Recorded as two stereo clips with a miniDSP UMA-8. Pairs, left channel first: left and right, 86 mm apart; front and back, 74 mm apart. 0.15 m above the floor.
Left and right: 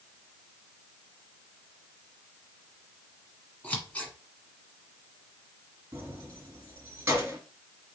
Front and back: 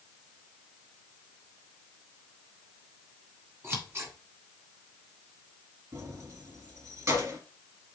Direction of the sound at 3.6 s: 150° left.